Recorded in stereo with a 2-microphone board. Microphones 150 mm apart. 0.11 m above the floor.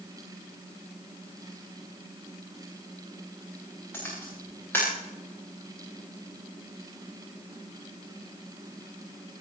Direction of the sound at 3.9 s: 15° left (ahead or behind).